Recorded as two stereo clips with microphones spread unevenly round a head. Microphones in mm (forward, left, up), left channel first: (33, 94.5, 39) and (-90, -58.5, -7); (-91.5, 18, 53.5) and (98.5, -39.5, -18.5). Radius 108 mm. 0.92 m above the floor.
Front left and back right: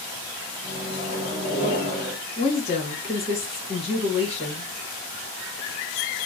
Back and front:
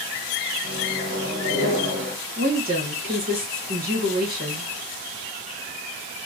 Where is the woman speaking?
15° right, 1.5 m.